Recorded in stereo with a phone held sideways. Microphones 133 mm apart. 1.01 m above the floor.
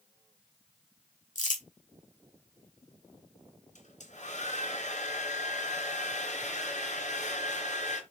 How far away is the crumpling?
About 3 m.